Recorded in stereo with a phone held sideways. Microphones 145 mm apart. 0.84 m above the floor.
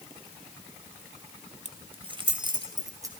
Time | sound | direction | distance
1.6 | keys jangling | 50° right (ahead or behind) | 1.8 m